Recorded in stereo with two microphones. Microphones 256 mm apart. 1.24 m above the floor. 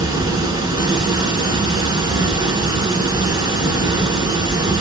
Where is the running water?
15° right (ahead or behind), 1.3 m.